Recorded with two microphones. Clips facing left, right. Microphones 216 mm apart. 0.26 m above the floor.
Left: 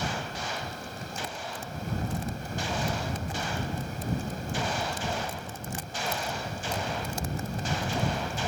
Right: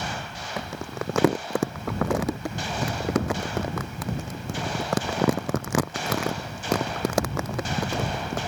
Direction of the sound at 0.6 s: 85° right.